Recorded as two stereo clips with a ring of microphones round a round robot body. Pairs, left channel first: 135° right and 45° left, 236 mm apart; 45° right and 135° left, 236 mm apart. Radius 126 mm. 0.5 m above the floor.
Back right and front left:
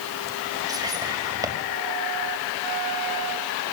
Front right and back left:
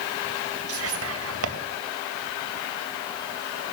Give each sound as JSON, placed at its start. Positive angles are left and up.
{"t": 0.7, "sound": "whispering", "azimuth_deg": 120, "distance_m": 3.0}